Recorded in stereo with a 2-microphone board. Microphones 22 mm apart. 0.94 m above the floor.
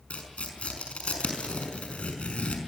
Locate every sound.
0.1 s tearing paper: 75° left (ahead or behind), 5 m